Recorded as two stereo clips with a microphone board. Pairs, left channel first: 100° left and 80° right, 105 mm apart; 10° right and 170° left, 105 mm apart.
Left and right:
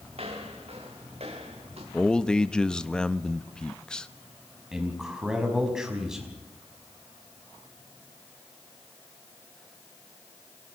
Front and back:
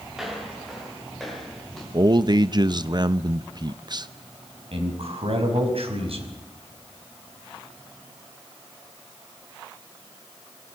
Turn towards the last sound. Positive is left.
turn(degrees=-165)